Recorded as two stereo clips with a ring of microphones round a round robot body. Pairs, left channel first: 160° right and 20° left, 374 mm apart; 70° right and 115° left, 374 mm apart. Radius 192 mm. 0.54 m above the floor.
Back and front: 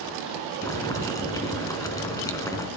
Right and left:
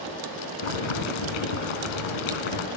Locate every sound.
0.6 s boiling: 75° right, 3 m